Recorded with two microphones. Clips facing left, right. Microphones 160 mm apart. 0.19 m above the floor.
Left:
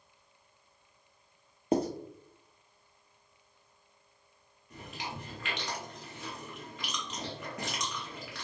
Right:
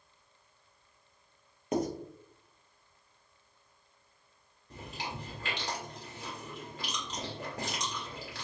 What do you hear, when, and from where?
1.7 s writing: 30° left (ahead or behind), 0.8 m
4.7 s chewing: 35° right (ahead or behind), 1.7 m